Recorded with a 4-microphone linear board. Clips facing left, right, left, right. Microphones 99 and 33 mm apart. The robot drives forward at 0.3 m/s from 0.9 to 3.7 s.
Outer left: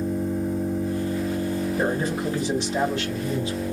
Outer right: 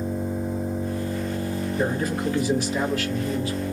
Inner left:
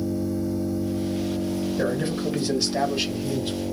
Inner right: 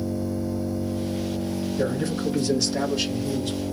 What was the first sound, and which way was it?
An engine running, centre (ahead or behind).